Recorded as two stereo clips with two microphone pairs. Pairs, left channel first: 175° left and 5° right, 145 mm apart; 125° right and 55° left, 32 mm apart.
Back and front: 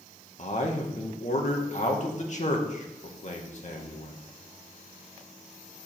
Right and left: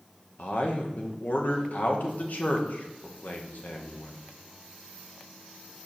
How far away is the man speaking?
About 1.6 m.